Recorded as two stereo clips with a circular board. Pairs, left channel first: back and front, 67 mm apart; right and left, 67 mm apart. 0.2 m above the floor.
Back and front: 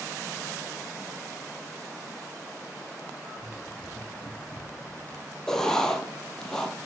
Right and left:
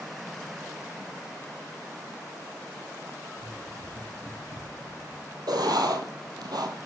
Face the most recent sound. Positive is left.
turn(degrees=100)